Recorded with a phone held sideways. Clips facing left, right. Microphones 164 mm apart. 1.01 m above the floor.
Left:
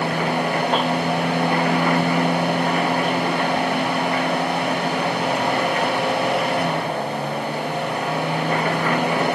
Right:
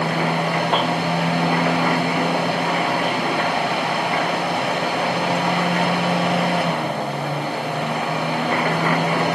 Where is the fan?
70° right (ahead or behind), 9 m.